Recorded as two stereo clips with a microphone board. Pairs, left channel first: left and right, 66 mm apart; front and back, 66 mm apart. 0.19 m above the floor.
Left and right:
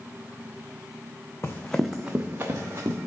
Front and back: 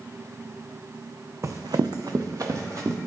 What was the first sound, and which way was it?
Running footsteps, 140° left.